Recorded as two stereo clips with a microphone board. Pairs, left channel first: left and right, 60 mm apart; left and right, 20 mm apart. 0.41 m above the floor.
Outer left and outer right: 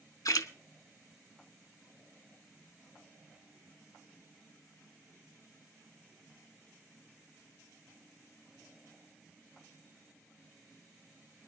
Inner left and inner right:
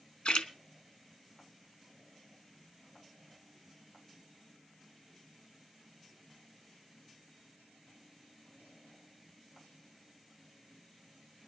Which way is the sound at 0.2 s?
70° left (ahead or behind).